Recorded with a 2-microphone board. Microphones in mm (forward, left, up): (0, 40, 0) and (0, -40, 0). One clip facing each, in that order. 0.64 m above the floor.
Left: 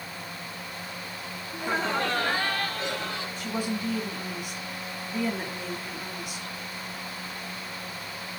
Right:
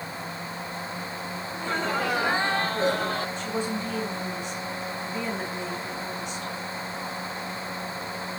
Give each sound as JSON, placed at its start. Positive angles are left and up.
{"t": 1.5, "sound": "laughter", "side_deg": 15, "distance_m": 1.2}
{"t": 3.4, "sound": "a woman speaking", "side_deg": 5, "distance_m": 6.0}